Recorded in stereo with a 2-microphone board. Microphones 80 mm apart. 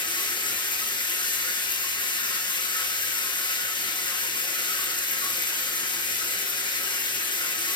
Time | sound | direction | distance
0.0 | running water | 75° left (ahead or behind) | 2.5 m